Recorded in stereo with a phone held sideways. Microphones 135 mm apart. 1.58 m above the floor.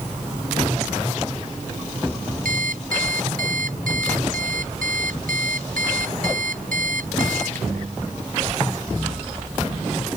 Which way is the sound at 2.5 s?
85° right.